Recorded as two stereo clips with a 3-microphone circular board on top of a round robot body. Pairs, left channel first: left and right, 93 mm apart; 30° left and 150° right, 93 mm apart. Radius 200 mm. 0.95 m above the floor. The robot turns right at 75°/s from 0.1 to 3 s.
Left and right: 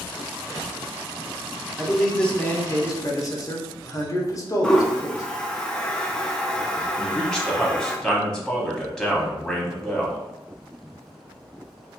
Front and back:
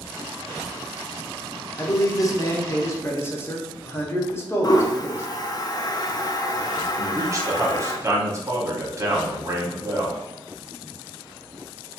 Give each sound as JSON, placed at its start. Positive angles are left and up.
{"t": 1.8, "sound": "a man speaking", "azimuth_deg": -20, "distance_m": 0.8}
{"t": 4.6, "sound": "a toilet flushing", "azimuth_deg": 10, "distance_m": 0.6}
{"t": 7.0, "sound": "a man speaking", "azimuth_deg": 175, "distance_m": 0.9}